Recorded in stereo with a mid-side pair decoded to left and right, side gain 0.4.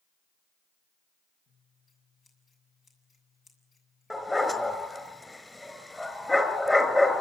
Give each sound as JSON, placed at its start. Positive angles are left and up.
{"t": 1.5, "sound": "scissors", "azimuth_deg": 55, "distance_m": 7.0}
{"t": 4.1, "sound": "a dog barking", "azimuth_deg": 20, "distance_m": 4.5}